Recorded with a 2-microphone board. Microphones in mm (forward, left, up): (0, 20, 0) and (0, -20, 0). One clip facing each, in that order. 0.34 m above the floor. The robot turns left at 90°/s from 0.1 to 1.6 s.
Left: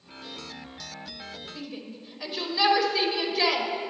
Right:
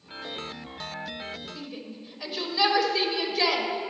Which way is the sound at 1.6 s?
5° left (ahead or behind).